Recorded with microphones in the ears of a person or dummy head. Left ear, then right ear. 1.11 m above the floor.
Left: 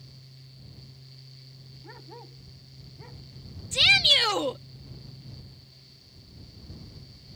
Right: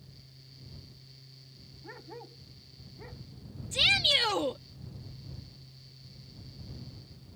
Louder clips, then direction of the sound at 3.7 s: Left 5 dB; 10° left (ahead or behind).